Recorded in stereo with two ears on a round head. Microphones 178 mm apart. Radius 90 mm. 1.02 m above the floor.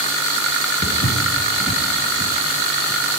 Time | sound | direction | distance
0.8 | footsteps | 40° left (ahead or behind) | 1.7 m